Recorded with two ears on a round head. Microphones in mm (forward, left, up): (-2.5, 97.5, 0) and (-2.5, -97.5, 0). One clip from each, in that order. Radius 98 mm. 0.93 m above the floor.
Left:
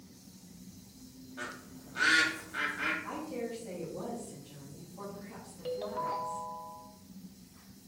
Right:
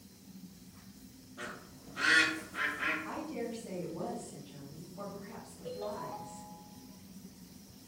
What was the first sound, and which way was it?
A bird, 50° left (ahead or behind).